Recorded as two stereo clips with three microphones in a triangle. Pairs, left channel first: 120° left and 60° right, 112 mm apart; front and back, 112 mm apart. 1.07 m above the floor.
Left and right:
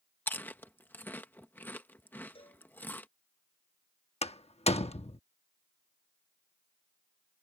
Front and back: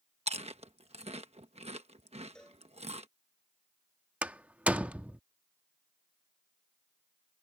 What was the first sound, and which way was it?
Chewing, 170° right.